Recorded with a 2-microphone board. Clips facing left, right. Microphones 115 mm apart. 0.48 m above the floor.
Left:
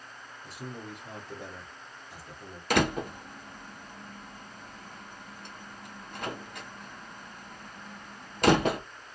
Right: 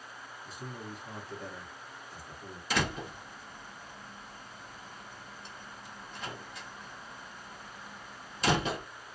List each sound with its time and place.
0.4 s a man speaking: 70° left (ahead or behind), 1.8 m
2.7 s a door slam: 55° left (ahead or behind), 0.6 m